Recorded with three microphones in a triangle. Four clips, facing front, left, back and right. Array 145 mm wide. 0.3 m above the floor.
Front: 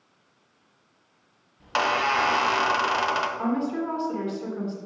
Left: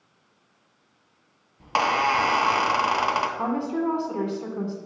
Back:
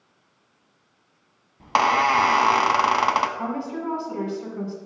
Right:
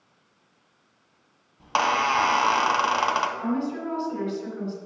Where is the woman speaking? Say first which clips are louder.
Left 2 dB, front 2 dB; 95° left, 2 m.